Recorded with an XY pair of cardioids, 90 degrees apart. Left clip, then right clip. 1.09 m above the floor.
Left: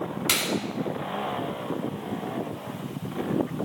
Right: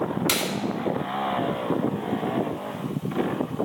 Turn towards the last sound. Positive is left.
turn(degrees=0)